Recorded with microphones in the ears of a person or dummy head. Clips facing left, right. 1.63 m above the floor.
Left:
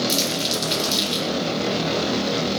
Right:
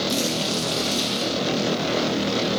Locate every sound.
0.1 s crumpling: 30° left (ahead or behind), 5 m